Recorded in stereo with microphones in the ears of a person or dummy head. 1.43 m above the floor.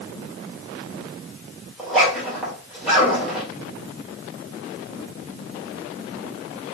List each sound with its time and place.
1.8 s a zipper: 5° right (ahead or behind), 1.8 m